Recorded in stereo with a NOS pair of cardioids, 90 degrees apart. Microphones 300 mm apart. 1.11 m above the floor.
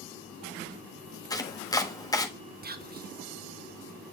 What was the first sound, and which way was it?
Chopping, 10° left.